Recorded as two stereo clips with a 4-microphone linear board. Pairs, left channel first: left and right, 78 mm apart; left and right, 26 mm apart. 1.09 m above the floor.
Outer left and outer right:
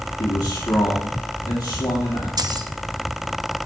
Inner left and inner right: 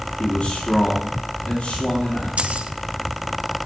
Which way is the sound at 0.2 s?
65° left (ahead or behind).